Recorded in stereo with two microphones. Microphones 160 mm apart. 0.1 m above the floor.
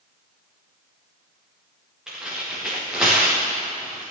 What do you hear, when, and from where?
2.1 s tearing paper: 5° right (ahead or behind), 4 m